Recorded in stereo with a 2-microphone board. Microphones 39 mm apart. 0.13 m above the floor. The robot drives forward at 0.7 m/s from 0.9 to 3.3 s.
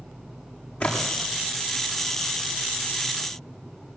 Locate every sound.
0.8 s a splash: 45° left (ahead or behind), 8 m